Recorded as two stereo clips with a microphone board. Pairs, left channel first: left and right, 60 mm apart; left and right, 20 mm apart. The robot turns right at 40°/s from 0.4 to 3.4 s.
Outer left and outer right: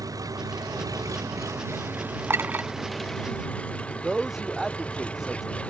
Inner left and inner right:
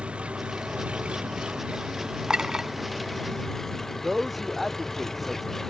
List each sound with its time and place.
0.0 s an engine running: 100° right; by 5.7 s 20° left
2.3 s a clink: 45° right (ahead or behind); by 2.7 s 30° right (ahead or behind)
4.0 s a man speaking: 5° right (ahead or behind)